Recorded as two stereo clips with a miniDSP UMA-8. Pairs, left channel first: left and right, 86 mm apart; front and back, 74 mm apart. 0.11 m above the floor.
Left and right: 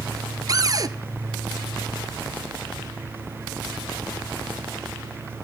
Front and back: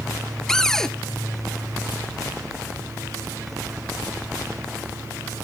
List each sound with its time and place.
0.5 s a cupboard door: 80° right, 1.2 m